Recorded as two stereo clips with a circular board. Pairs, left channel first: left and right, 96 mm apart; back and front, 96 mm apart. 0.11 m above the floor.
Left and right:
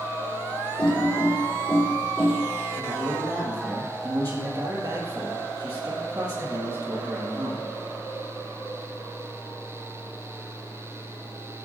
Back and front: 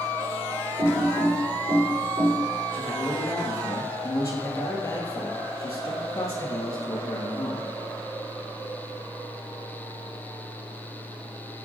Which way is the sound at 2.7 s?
130° right.